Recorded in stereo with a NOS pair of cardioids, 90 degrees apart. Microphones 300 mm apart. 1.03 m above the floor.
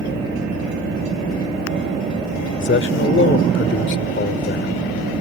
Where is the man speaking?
40° left.